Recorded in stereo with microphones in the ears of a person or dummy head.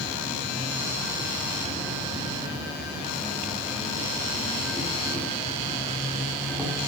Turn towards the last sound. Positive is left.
turn(degrees=-5)  # may be behind; listen again after turning